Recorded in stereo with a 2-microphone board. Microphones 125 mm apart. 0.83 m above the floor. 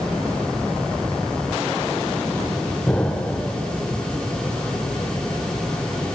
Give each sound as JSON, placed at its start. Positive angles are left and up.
{"t": 2.9, "sound": "an explosion", "side_deg": 10, "distance_m": 0.5}